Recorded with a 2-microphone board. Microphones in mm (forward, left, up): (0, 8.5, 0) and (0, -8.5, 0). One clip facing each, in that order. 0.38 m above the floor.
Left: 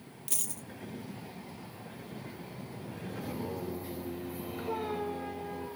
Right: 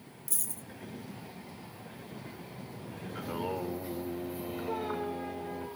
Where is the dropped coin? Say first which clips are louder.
Left 2 dB; 45° left (ahead or behind), 0.5 m.